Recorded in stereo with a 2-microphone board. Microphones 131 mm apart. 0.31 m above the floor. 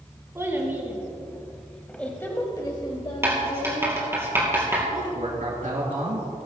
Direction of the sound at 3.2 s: 20° right (ahead or behind).